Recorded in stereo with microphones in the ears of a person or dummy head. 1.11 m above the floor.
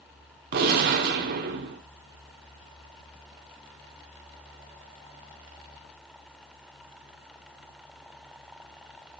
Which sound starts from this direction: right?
A gunshot, at 0.5 s.